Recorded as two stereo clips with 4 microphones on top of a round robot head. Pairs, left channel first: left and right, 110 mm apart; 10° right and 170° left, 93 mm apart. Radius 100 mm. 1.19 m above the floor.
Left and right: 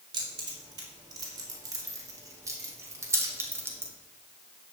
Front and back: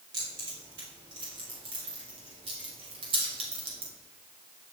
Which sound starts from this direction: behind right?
Keys jangling, at 0.1 s.